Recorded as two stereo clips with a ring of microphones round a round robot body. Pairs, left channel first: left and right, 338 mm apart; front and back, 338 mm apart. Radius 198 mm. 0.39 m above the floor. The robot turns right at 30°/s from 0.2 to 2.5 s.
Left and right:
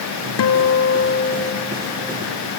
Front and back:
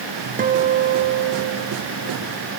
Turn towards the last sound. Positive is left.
turn(degrees=-175)